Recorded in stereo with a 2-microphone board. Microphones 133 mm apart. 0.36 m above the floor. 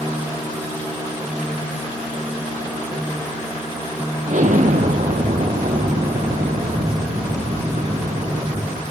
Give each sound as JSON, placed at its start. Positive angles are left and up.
{"t": 4.3, "sound": "an explosion", "side_deg": -70, "distance_m": 3.0}